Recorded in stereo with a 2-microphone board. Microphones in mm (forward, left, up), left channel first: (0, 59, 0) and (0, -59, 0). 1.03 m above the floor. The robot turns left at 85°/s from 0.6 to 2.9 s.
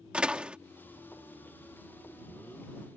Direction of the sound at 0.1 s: 10° right (ahead or behind).